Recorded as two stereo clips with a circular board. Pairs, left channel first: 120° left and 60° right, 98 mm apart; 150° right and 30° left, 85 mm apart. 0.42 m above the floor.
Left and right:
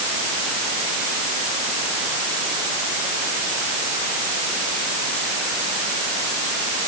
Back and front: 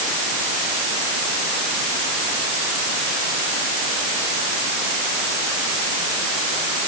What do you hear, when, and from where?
Only background noise.